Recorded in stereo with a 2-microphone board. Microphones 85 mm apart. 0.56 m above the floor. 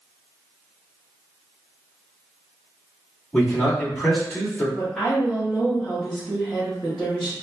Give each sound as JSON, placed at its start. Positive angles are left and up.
{"t": 3.3, "sound": "a man speaking", "side_deg": 20, "distance_m": 1.3}
{"t": 4.8, "sound": "a woman speaking", "side_deg": -5, "distance_m": 0.8}